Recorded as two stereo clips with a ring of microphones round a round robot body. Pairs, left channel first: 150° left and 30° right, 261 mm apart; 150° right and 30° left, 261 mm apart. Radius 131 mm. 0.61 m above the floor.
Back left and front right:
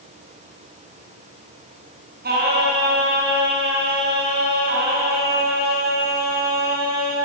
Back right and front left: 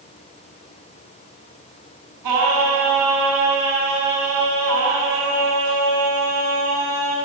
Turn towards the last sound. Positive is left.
turn(degrees=25)